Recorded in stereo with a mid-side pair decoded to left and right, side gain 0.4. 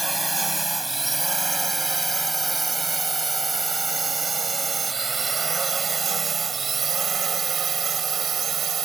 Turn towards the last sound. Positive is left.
turn(degrees=-60)